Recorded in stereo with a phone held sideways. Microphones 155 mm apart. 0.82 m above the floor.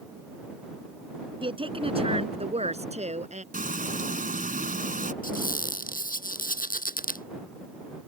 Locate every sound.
1.4 s a woman speaking: 30° right (ahead or behind); by 3.4 s 45° right (ahead or behind)
3.5 s frying: 60° right (ahead or behind)
5.2 s a squeak: 60° left (ahead or behind)